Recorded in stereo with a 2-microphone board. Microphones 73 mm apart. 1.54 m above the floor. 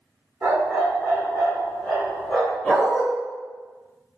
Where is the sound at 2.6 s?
10° left (ahead or behind), 1.8 m.